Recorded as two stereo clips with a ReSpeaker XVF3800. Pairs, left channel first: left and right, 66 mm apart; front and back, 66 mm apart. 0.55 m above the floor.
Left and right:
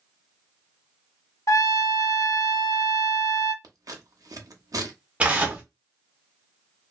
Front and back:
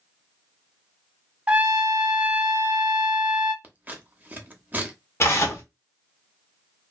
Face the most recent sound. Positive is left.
turn(degrees=-25)